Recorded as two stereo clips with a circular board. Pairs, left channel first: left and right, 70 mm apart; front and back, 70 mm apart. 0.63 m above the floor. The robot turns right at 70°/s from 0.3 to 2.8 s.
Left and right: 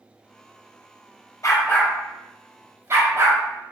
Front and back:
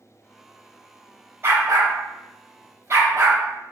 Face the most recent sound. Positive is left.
turn(degrees=-135)